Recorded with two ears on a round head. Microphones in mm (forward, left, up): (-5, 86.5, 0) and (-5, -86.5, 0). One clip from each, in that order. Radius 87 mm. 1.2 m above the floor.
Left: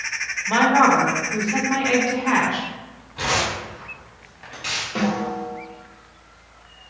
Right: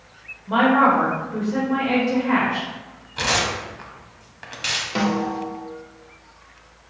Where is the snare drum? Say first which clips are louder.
Right 1 dB; 35° right (ahead or behind), 0.9 m.